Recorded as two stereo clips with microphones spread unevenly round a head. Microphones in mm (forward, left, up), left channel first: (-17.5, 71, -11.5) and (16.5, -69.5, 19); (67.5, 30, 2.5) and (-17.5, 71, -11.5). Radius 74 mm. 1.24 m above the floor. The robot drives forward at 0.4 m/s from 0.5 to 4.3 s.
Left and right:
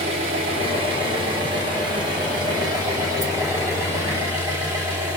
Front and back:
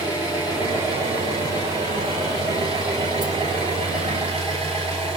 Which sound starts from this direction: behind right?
An engine running, at 0.0 s.